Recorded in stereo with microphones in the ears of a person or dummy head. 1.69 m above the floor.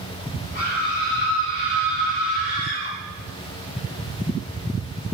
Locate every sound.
0.6 s a scream: 50° left (ahead or behind), 1.4 m; by 2.9 s 35° left (ahead or behind), 4.5 m